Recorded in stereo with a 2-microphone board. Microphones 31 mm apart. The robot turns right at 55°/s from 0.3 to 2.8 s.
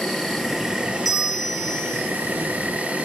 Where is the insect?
175° left, 1.9 m; by 3.0 s 50° right, 1.9 m.